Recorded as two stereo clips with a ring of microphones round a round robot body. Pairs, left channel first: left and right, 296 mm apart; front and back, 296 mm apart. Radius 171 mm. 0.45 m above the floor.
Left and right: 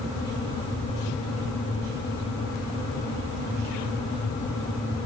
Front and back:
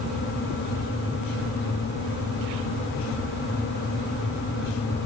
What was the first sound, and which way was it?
Only background noise.